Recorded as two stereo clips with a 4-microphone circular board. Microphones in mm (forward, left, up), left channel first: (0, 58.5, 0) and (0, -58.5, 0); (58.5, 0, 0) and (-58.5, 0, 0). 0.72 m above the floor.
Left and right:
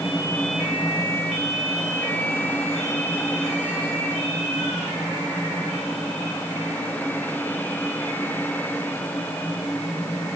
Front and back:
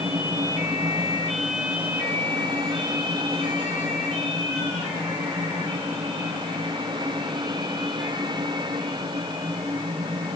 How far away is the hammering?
I don't hear hammering.